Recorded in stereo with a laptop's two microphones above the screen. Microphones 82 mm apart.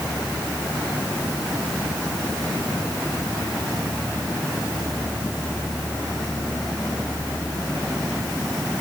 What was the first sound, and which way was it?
Only background noise.